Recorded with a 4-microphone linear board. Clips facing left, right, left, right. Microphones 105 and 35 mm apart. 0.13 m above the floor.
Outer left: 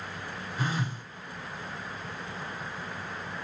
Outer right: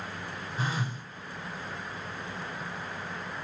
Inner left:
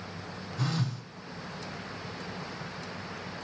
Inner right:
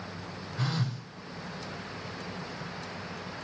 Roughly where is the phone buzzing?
Right.